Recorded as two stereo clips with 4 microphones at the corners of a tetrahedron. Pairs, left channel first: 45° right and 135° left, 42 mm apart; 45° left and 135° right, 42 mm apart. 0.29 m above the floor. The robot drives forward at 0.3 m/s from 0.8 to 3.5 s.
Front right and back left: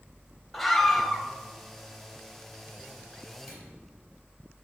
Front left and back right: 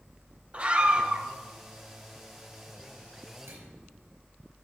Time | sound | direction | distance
0.5 | a scream | 130° right | 1.1 m
3.5 | a microwave | 145° right | 4 m